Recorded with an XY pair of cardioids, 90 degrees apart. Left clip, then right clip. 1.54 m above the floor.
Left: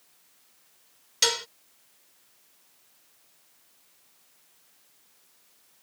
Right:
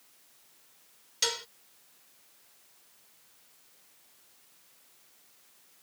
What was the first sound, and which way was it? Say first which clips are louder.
Dishes clattering: left 6 dB; 50° left.